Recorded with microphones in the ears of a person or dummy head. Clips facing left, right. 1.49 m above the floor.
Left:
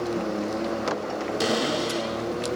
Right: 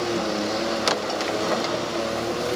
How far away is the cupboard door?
About 4.5 m.